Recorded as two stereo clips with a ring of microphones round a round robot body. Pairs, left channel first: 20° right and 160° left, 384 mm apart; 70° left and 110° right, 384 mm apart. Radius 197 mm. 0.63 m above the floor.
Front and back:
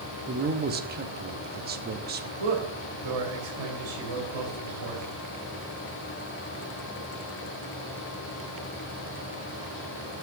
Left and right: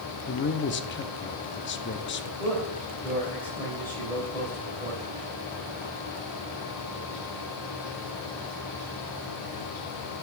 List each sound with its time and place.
0.3 s a man speaking: 110° left, 0.8 m
2.4 s a man speaking: 150° left, 3 m